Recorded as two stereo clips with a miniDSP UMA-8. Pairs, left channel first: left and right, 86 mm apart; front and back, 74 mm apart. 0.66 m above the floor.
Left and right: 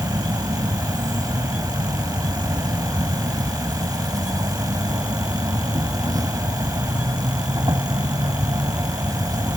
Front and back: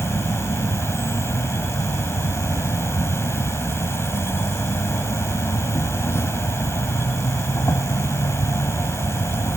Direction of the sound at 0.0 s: 55° right.